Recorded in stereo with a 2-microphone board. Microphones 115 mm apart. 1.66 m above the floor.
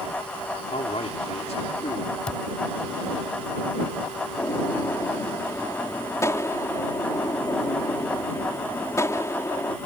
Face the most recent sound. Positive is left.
turn(degrees=25)  # may be behind; listen again after turning